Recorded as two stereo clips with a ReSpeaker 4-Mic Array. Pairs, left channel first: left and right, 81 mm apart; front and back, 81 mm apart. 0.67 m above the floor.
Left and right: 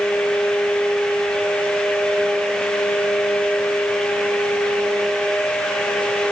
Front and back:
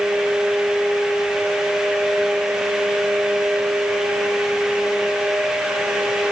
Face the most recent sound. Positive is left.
No sound to turn to.